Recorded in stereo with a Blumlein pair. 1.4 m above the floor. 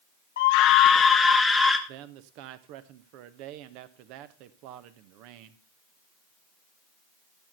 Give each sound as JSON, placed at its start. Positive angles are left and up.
{"t": 0.4, "sound": "a scream", "azimuth_deg": 60, "distance_m": 0.6}
{"t": 1.9, "sound": "a man speaking", "azimuth_deg": -45, "distance_m": 1.2}